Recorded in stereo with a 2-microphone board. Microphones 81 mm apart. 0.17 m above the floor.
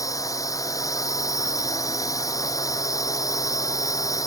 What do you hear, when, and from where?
0.0 s a drone: 45° left (ahead or behind)